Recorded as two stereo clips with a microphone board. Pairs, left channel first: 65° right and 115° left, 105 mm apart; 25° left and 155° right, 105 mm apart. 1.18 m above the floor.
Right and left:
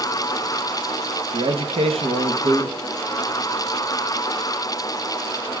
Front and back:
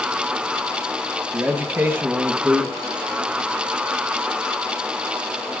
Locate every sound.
1.3 s a man speaking: 130° left, 1.0 m